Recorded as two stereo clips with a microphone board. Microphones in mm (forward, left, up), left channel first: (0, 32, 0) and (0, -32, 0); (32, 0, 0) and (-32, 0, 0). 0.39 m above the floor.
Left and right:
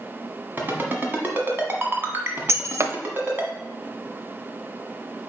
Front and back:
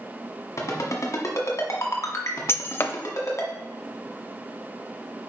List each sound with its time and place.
0.6 s a ringtone: 35° right, 1.3 m
2.5 s breaking glass: 50° right, 0.5 m